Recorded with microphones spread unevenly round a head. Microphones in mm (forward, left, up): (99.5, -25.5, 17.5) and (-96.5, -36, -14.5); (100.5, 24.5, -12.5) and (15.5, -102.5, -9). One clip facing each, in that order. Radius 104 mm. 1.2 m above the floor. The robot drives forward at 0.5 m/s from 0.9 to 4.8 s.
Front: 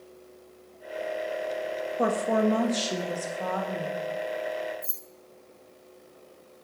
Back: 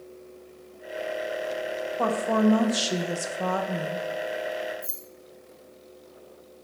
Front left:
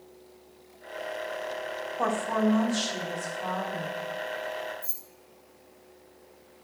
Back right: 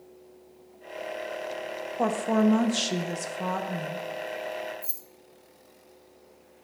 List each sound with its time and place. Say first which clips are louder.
2.0 s a woman speaking: back 1 dB, back right 3 dB; 65° right, 0.8 m; by 4.0 s 135° right, 1.0 m
4.8 s keys jangling: back 2 dB, back right 1 dB; 75° right, 0.7 m